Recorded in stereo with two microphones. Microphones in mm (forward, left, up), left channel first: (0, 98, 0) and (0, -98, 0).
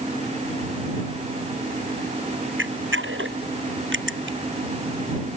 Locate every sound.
2.6 s a camera shutter: 80° right